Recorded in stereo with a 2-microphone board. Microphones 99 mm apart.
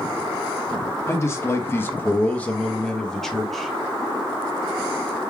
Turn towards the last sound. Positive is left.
turn(degrees=0)  # may be behind; listen again after turning